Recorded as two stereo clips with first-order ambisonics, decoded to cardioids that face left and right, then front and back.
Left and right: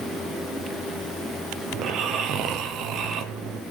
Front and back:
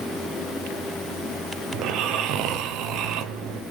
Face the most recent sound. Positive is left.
turn(degrees=-140)